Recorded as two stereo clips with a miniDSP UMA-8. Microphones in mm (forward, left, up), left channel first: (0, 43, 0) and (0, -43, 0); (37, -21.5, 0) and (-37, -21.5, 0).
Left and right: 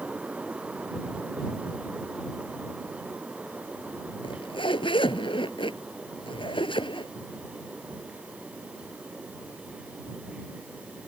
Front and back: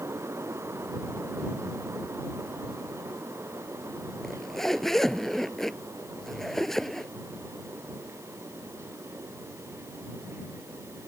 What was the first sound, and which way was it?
A zipper, 85° left.